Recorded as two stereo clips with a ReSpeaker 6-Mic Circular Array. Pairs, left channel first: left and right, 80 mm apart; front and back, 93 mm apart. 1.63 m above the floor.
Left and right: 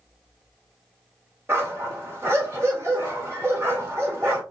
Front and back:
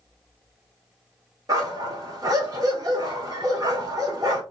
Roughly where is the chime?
No chime in this recording.